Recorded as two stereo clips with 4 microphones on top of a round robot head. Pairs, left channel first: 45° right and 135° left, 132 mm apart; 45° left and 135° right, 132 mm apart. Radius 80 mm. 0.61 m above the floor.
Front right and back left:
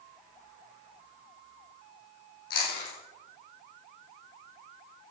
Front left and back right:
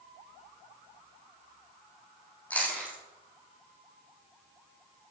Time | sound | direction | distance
2.5 | chewing | 35° right | 5 m